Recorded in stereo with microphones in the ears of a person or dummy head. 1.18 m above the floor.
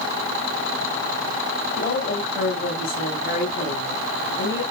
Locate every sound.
1.8 s a woman speaking: 40° left (ahead or behind), 4 m